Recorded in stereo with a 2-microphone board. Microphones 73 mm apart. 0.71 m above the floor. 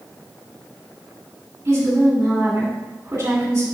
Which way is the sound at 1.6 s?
50° right (ahead or behind).